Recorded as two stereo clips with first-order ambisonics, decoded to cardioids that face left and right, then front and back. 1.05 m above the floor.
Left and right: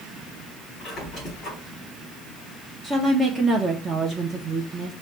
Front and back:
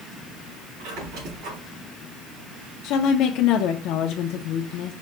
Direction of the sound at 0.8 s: 160° left.